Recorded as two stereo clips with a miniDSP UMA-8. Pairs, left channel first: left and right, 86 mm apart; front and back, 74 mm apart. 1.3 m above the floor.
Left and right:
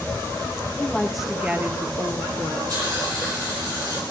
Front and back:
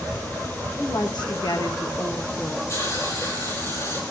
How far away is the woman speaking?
About 1.4 m.